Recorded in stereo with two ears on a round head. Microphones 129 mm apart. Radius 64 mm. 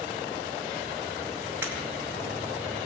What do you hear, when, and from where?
1.6 s breaking glass: 15° right (ahead or behind), 2.5 m